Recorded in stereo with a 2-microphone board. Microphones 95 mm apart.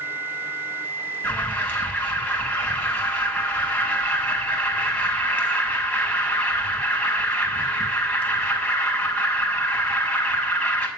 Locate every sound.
1.2 s an alarm: 15° left (ahead or behind), 5.5 m